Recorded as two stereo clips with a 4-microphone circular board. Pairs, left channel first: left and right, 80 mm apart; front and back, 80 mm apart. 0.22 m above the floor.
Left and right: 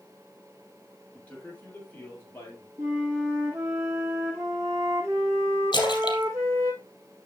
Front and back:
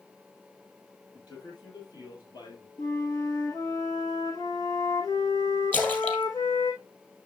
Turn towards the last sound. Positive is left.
turn(degrees=70)